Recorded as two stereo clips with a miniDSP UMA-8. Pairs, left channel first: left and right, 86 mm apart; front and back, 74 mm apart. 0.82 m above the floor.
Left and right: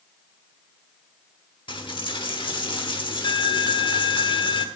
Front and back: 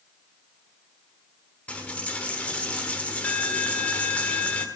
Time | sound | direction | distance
1.7 | a dropped coin | 75° left | 1.2 m